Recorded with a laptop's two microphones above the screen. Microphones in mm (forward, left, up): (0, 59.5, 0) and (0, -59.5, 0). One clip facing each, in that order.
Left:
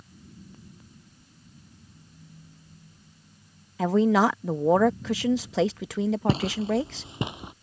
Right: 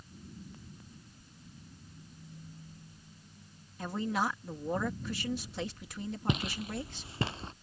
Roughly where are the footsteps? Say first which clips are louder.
Left 10 dB; left.